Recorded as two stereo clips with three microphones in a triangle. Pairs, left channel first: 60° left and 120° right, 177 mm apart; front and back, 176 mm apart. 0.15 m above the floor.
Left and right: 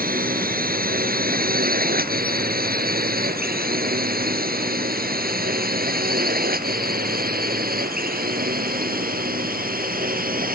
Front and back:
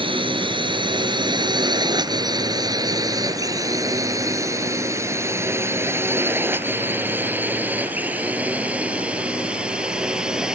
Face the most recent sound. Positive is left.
turn(degrees=-95)